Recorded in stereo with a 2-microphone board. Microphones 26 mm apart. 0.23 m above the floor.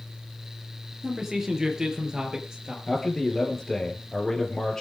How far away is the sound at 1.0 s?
About 4.5 m.